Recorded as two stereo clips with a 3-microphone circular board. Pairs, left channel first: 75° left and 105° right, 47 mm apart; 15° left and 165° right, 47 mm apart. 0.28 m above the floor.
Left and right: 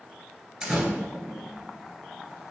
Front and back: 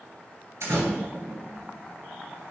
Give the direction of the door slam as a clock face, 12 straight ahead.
6 o'clock.